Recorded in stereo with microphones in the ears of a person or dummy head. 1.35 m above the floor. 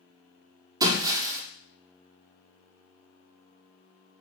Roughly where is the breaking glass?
Right.